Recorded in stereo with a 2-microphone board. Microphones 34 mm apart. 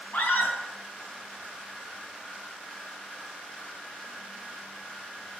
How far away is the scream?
About 5.5 m.